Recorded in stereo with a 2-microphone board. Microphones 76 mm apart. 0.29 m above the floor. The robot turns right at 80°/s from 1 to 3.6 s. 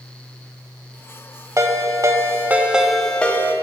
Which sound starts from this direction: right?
A ringtone, at 1.6 s.